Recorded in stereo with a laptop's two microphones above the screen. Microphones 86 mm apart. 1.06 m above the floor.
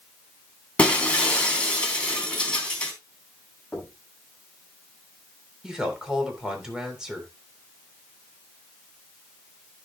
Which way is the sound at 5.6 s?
10° right (ahead or behind).